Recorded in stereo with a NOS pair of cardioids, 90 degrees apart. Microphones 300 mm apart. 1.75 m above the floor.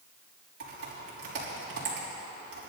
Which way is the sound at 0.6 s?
50° right.